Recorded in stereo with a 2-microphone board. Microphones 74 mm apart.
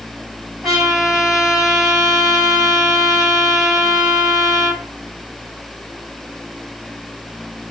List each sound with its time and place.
0.6 s a trumpet: 10° right (ahead or behind), 5 m